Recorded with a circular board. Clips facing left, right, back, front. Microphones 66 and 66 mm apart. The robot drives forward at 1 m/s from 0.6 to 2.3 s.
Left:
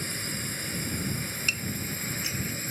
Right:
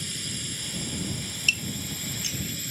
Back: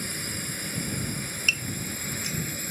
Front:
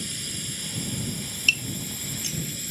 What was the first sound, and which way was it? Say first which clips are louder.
A drone: left 2 dB, back 2 dB; 135° left.